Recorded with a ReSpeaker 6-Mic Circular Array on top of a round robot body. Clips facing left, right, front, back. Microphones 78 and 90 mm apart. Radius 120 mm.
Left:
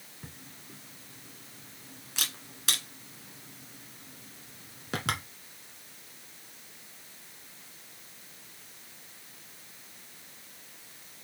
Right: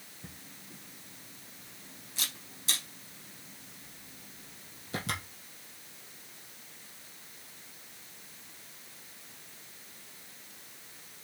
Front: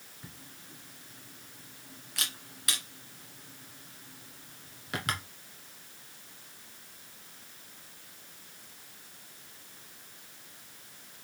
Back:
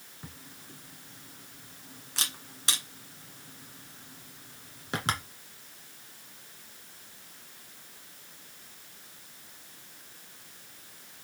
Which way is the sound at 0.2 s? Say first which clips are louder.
Left 2 dB, back 3 dB; 120° left.